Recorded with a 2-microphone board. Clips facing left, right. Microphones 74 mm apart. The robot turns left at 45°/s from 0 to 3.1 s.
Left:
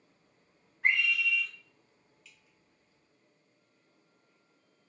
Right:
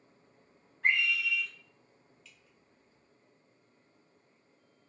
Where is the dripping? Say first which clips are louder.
Right 1 dB; centre (ahead or behind), 0.6 m; by 2.6 s 10° left (ahead or behind), 0.6 m.